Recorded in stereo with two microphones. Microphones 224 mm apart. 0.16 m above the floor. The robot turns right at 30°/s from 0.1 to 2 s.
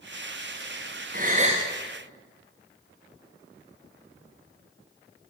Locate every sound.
1.1 s a gasp: 40° right (ahead or behind), 4.5 m; by 1.6 s 25° right (ahead or behind), 4.5 m